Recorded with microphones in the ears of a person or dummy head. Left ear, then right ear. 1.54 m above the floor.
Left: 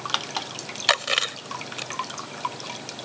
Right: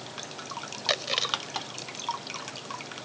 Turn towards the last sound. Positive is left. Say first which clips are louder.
# left 5 dB
turn(degrees=40)  # may be behind; listen again after turning